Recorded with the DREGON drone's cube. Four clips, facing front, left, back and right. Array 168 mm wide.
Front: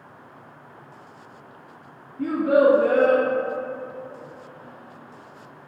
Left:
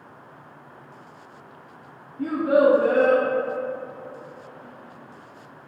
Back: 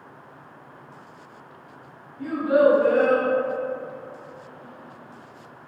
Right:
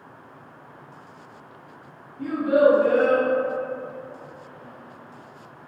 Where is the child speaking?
40° left, 1.0 m.